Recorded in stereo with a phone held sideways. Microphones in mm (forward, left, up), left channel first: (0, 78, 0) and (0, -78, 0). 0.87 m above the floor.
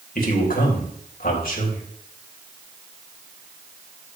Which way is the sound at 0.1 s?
70° left (ahead or behind).